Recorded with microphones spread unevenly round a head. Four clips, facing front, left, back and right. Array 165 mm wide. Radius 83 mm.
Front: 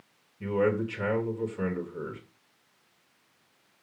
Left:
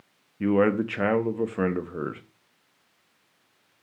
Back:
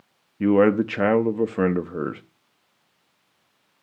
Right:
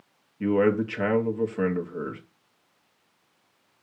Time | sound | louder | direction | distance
0.4 | a man speaking | even, back 9 dB | 170° left | 1.0 m